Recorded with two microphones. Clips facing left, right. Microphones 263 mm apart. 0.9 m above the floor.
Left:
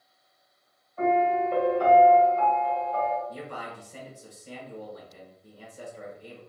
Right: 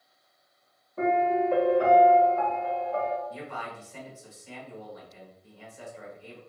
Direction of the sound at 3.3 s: 45° left (ahead or behind).